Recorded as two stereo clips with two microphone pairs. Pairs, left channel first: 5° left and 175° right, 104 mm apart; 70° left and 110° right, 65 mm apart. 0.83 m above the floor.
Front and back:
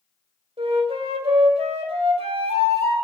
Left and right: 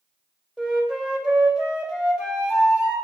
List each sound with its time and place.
0.6 s a flute: 175° left, 3.5 m